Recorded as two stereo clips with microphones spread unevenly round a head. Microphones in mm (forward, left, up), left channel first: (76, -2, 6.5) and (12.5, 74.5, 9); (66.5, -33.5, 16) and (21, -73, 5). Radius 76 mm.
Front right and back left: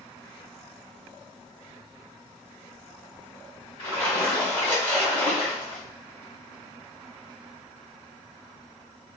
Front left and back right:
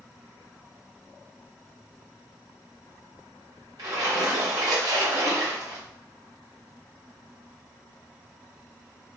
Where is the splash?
130° right, 1.5 m.